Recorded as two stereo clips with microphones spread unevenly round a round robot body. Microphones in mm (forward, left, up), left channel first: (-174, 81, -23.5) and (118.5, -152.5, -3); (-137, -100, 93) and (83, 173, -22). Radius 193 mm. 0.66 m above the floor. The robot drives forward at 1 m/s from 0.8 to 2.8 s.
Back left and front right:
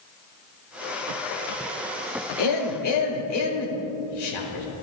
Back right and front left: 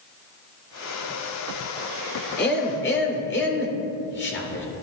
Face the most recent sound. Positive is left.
turn(degrees=165)